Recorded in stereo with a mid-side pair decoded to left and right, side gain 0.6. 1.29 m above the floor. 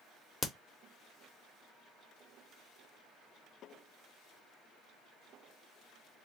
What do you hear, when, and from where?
0.4 s a crack: 20° left, 0.9 m